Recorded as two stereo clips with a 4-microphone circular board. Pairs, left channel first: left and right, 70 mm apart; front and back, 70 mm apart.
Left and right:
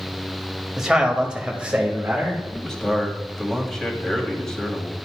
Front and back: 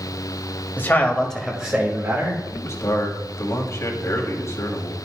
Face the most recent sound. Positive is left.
turn(degrees=10)